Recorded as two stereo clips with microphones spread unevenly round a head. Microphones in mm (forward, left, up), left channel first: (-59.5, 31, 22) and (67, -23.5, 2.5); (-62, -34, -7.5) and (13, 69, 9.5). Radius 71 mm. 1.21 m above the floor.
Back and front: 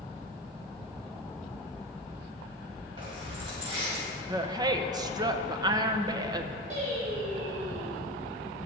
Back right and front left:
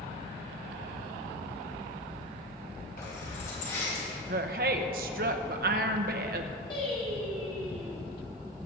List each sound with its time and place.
3.0 s keys jangling: 85° right, 5 m; by 4.0 s 75° right, 6 m
4.3 s a woman speaking: 35° left, 0.9 m
6.7 s singing: 65° right, 4 m